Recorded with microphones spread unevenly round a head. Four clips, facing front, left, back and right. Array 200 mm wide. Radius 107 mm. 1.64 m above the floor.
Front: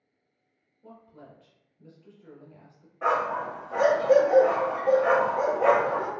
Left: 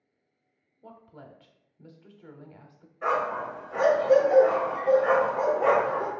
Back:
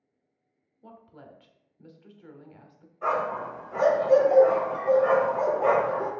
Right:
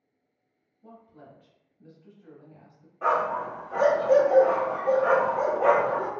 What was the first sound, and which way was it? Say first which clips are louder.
A woman speaking: left 1 dB, even; 105° left.